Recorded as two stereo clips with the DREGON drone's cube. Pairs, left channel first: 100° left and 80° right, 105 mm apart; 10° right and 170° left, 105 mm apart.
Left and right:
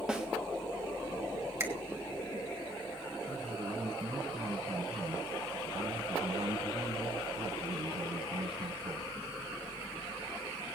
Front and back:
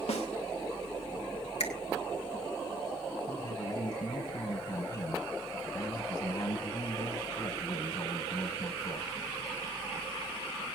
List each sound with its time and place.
0.1 s a snare drum: 5° left, 2.5 m
1.6 s a finger snap: 15° right, 2 m
3.3 s a man speaking: 65° right, 5 m